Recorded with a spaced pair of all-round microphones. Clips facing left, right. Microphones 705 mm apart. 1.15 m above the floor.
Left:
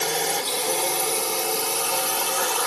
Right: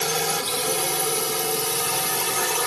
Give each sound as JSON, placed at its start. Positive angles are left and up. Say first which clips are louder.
{"t": 0.0, "sound": "a drone", "louder": "even", "side_deg": -40}